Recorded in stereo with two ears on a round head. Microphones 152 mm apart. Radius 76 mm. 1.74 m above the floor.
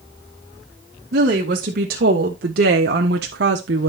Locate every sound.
1.1 s a woman speaking: 55° right (ahead or behind), 3 m; by 3.9 s 75° right (ahead or behind), 1.1 m